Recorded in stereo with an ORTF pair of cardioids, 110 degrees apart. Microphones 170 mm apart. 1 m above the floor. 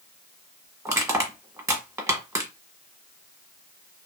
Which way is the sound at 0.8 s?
15° right.